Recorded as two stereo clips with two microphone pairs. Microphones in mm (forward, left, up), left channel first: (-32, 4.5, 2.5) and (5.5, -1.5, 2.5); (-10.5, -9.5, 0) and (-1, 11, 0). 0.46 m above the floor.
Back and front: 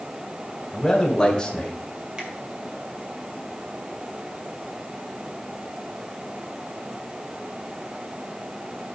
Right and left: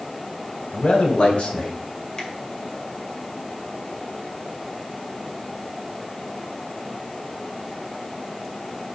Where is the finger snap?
75° right, 2.0 m.